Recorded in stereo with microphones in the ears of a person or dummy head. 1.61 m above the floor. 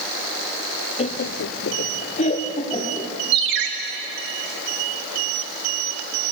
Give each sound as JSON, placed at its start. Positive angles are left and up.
{"t": 1.0, "sound": "laughter", "side_deg": 35, "distance_m": 0.7}
{"t": 3.3, "sound": "a ringtone", "side_deg": -65, "distance_m": 1.8}